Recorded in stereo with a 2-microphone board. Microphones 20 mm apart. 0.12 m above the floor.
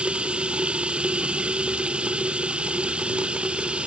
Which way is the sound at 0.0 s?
55° right (ahead or behind).